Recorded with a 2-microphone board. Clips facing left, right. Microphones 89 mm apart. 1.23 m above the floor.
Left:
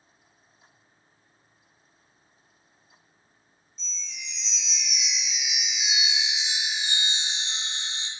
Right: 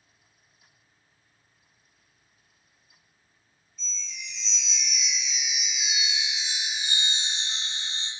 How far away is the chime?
About 0.8 m.